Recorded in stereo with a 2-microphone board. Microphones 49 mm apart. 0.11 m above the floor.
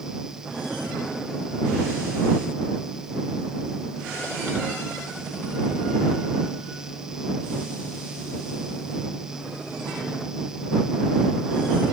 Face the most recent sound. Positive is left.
No sound to turn to.